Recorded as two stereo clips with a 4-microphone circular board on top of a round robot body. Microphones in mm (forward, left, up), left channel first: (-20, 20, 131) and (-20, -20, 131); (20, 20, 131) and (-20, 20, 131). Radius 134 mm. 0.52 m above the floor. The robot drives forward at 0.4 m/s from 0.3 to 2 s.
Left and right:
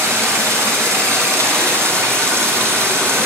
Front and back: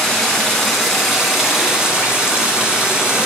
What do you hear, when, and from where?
0.0 s running water: 80° right, 1.5 m; by 3.3 s 105° right, 1.5 m